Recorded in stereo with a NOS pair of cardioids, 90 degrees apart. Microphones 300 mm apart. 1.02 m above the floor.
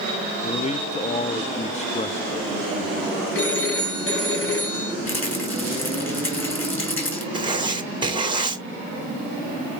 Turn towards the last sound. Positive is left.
turn(degrees=-15)